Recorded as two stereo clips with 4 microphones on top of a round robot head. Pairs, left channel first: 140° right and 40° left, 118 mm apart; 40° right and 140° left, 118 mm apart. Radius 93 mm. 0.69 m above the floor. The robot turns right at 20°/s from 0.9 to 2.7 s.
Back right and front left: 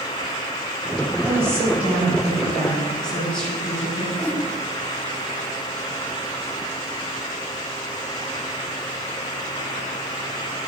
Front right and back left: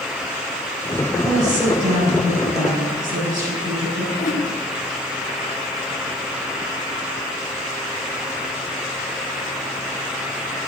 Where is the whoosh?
65° right, 1.4 m.